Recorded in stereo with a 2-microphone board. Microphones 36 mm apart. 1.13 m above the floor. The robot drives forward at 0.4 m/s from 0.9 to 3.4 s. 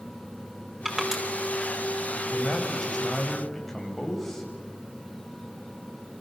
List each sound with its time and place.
0.8 s crushing: 10° right (ahead or behind), 5 m
2.1 s a man speaking: 5° left (ahead or behind), 5.5 m